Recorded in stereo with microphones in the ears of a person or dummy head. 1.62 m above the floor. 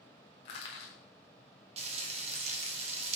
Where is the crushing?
25° left (ahead or behind), 1.0 m.